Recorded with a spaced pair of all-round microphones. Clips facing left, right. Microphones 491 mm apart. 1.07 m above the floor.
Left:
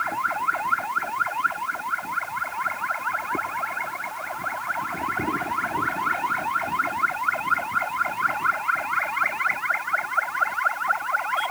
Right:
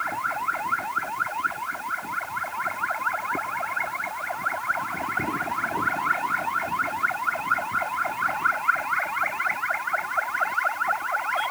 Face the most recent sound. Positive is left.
No sound to turn to.